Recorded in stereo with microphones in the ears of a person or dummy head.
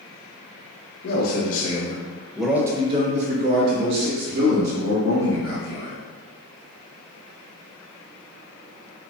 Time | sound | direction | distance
1.0 | a man speaking | 50° left (ahead or behind) | 0.9 m